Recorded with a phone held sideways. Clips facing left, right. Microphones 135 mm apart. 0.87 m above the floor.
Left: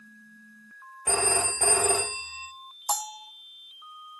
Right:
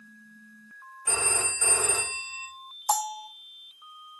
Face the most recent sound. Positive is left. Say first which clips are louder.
# right 5 dB
turn(degrees=-55)  # may be behind; listen again after turning